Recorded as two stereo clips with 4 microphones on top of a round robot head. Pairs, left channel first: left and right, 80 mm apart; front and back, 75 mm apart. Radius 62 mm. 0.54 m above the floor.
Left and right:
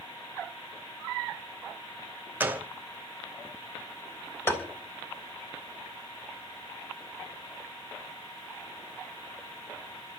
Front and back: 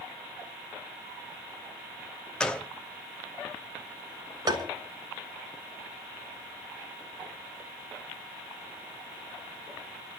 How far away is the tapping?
About 3.5 m.